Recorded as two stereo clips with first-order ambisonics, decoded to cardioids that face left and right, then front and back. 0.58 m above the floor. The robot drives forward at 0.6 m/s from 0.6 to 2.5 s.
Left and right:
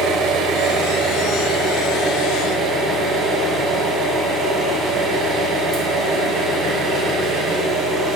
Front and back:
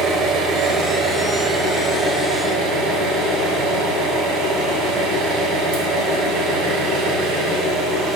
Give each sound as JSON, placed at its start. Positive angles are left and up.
{"t": 0.0, "sound": "an engine running", "azimuth_deg": -130, "distance_m": 1.1}